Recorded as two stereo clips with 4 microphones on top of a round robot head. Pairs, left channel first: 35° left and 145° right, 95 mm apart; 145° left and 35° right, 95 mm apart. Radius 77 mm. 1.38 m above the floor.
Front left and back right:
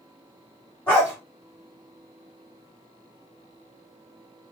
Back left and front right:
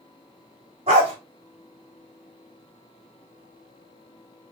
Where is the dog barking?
30° right, 1.1 m.